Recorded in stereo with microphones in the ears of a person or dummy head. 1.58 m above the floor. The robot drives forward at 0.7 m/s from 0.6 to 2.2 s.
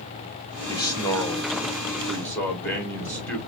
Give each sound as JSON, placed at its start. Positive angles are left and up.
{"t": 0.7, "sound": "a man speaking", "side_deg": 20, "distance_m": 0.7}